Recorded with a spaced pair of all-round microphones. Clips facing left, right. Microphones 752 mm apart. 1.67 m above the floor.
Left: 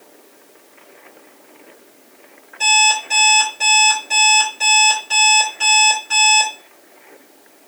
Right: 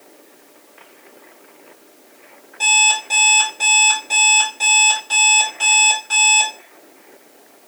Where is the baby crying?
I don't hear a baby crying.